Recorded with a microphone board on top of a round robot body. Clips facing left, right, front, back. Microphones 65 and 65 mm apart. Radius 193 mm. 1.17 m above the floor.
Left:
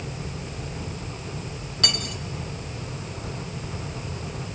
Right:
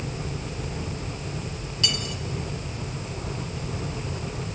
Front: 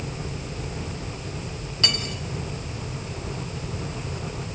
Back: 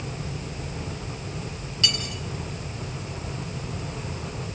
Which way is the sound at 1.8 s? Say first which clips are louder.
Even, front 1 dB; 55° left.